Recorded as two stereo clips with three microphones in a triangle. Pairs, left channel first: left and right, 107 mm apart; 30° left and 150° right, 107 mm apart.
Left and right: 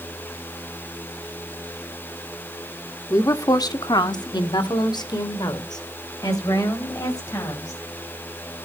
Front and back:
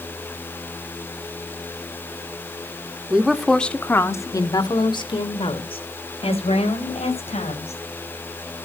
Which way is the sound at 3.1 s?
135° left.